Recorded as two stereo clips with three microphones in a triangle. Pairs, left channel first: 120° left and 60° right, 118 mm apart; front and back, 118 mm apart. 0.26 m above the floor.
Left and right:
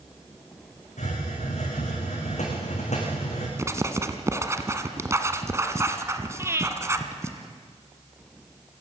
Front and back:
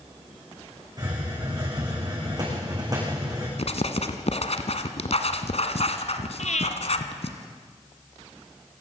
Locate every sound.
1.0 s a hiss: 125° left, 9 m
3.6 s writing: 5° left, 1.6 m
6.4 s breathing: 10° left, 2.5 m